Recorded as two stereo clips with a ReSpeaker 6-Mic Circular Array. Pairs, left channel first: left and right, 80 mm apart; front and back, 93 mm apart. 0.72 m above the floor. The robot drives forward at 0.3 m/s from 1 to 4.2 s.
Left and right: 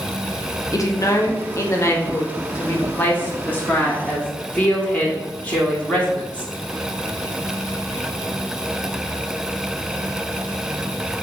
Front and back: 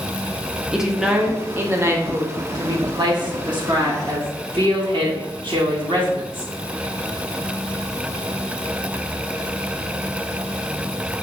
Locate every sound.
0.7 s a woman speaking: 95° left, 0.6 m; by 6.5 s 160° left, 1.1 m